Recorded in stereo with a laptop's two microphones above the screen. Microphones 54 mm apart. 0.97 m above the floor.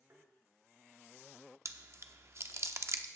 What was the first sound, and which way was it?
Tapping, 55° right (ahead or behind).